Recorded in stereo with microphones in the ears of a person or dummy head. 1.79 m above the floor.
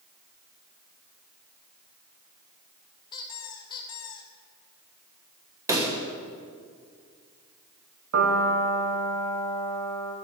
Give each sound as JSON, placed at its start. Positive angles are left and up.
{"t": 3.1, "sound": "a squeak", "side_deg": 15, "distance_m": 1.3}
{"t": 5.7, "sound": "a pop", "side_deg": -10, "distance_m": 1.0}
{"t": 8.1, "sound": "a piano", "side_deg": -75, "distance_m": 1.6}